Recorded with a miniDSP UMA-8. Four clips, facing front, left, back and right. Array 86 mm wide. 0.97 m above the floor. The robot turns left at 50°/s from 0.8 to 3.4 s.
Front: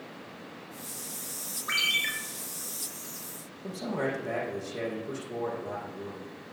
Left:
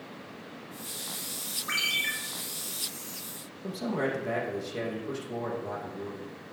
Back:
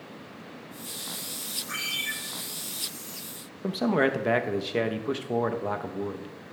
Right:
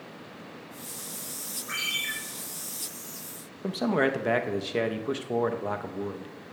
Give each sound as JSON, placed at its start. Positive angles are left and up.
{"t": 1.7, "sound": "a ringtone", "azimuth_deg": 30, "distance_m": 3.0}
{"t": 3.6, "sound": "a man speaking", "azimuth_deg": -145, "distance_m": 0.7}